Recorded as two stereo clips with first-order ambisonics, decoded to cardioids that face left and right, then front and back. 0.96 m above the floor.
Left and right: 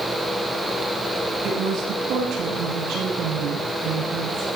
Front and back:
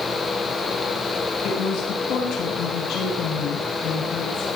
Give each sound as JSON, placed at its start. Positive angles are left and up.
{"t": 1.4, "sound": "a woman speaking", "azimuth_deg": -50, "distance_m": 7.0}